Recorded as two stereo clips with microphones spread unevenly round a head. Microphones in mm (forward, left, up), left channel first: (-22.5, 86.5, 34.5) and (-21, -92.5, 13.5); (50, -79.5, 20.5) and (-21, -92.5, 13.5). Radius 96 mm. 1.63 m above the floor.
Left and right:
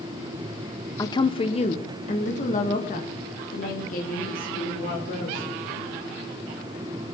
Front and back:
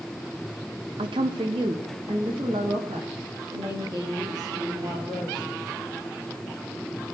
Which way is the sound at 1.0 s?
155° left.